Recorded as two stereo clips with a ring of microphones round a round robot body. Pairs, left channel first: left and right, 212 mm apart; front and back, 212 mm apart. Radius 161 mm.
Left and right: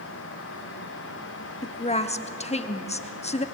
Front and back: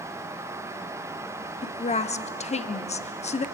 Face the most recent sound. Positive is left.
turn(degrees=45)